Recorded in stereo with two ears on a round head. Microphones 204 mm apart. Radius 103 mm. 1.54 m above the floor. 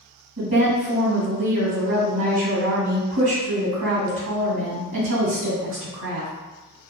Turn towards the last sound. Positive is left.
turn(degrees=-60)  # may be behind; listen again after turning